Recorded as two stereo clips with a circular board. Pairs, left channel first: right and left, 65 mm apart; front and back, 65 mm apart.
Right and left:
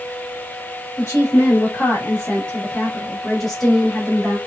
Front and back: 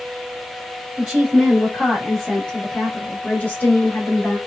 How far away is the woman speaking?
About 1.6 m.